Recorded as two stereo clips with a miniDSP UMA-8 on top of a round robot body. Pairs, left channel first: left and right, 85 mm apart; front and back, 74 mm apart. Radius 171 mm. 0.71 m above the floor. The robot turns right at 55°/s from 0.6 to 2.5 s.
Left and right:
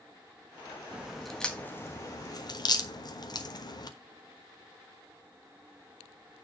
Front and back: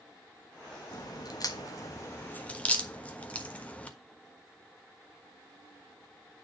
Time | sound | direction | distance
0.9 | a crack | 20° right | 1.5 m